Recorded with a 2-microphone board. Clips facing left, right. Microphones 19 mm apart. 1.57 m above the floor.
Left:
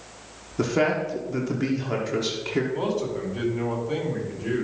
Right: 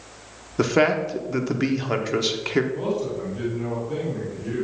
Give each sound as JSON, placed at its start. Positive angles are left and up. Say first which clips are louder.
{"t": 0.6, "sound": "a man speaking", "louder": "right 3 dB", "side_deg": -30, "distance_m": 1.0}
{"t": 2.7, "sound": "a man speaking", "louder": "even", "side_deg": 40, "distance_m": 4.0}